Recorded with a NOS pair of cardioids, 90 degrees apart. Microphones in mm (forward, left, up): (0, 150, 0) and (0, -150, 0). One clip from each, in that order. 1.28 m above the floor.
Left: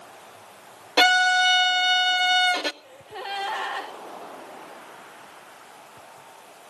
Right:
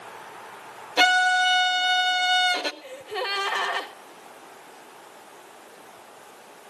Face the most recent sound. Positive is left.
turn(degrees=-60)